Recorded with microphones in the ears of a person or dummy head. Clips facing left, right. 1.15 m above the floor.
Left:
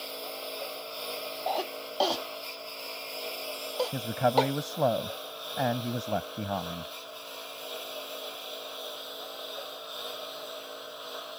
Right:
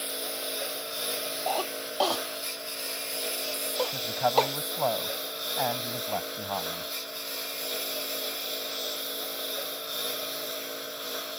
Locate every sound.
0.0 s a lawn mower: 20° right (ahead or behind); by 11.4 s 30° right (ahead or behind)
1.5 s a cough: 5° left (ahead or behind)
3.9 s a man speaking: 35° left (ahead or behind)